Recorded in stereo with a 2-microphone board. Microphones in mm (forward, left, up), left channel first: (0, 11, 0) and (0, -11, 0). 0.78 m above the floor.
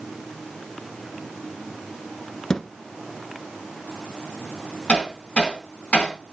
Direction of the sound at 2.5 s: 30° left (ahead or behind).